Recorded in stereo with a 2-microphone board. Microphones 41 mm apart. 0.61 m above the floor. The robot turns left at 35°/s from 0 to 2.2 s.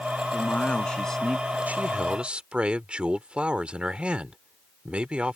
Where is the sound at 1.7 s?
45° right (ahead or behind); by 5.4 s 30° right (ahead or behind).